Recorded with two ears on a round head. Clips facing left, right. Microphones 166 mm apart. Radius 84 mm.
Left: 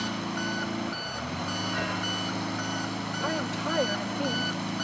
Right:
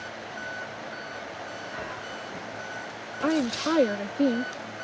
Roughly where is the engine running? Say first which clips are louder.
Left 7 dB; left.